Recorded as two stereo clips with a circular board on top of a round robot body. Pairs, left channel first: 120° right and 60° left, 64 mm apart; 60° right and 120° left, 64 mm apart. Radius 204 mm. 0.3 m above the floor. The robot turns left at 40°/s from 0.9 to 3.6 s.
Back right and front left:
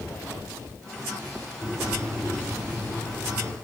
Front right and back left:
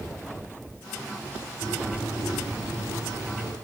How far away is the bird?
About 7.5 m.